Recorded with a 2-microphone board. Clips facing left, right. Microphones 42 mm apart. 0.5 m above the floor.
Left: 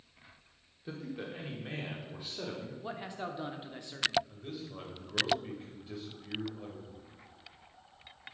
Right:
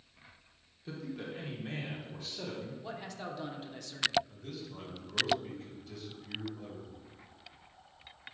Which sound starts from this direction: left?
A man speaking, at 4.3 s.